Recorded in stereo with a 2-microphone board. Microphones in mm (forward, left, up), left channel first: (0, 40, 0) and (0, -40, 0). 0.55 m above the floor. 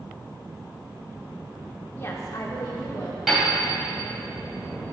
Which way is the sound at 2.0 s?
25° left (ahead or behind).